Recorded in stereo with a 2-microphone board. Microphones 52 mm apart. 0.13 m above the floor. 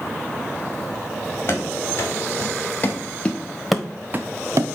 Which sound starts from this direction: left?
Running footsteps, at 1.5 s.